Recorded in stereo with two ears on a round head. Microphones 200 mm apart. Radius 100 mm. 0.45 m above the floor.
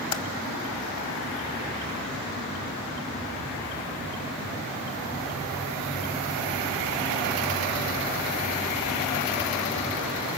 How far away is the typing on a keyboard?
About 0.8 m.